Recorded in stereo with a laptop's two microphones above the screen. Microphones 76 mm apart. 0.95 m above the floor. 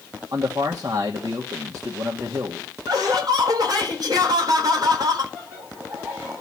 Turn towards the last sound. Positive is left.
turn(degrees=-25)  # may be behind; listen again after turning